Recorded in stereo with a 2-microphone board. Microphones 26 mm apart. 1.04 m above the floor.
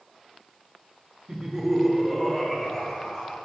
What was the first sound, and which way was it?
Laughter, 30° right (ahead or behind).